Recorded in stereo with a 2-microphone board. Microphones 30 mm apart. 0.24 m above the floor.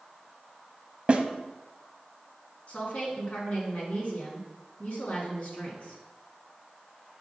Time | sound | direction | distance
1.1 | a snare drum | 40° right (ahead or behind) | 0.6 m
2.7 | a woman speaking | 40° left (ahead or behind) | 2 m